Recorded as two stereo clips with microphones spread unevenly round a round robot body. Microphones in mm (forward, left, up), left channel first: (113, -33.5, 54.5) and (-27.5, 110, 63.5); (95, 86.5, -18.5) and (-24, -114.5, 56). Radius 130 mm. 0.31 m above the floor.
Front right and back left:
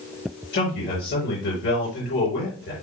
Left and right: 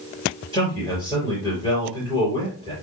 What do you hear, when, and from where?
0.5 s a man speaking: 15° right, 5.5 m